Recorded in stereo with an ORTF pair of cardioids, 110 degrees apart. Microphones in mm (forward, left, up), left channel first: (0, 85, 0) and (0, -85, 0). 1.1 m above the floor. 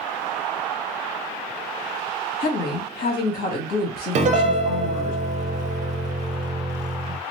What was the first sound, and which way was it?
A woman speaking, 70° left.